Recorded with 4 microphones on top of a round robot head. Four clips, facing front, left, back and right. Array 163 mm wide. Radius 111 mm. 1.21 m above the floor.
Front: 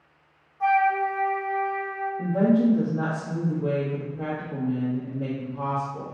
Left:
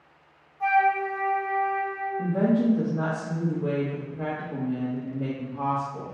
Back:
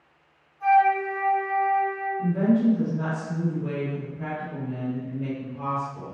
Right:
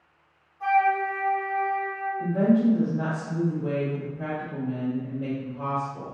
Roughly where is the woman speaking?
Ahead left.